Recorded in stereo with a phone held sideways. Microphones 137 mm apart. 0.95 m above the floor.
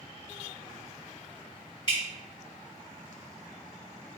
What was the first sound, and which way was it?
Dripping, 35° left (ahead or behind).